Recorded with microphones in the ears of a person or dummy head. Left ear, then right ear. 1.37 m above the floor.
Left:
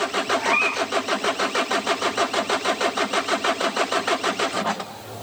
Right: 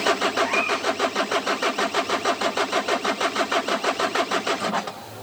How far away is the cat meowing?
About 3.5 m.